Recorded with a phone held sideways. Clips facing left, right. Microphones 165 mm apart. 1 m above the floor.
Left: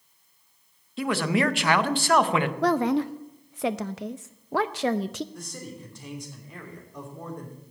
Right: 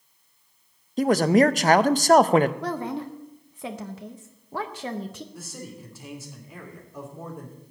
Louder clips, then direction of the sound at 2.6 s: Left 7 dB; 80° left.